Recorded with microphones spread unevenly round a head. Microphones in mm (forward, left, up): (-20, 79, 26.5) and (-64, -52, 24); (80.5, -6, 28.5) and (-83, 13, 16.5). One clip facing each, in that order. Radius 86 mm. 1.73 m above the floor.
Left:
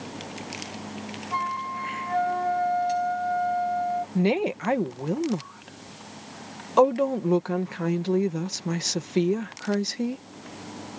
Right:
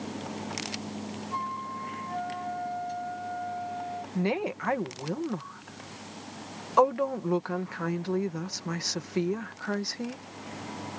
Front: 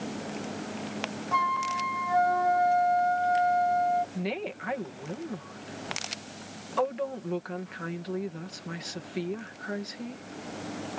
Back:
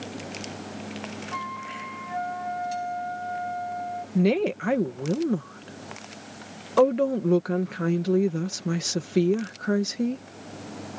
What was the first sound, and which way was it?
A flute, 25° left.